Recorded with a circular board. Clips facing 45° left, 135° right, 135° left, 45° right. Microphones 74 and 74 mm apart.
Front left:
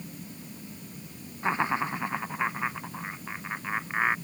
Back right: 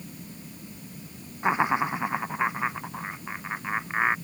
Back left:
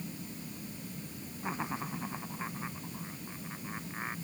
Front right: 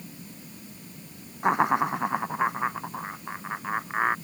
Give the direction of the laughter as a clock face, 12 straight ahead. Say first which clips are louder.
Back right 4 dB, front right 15 dB; 2 o'clock.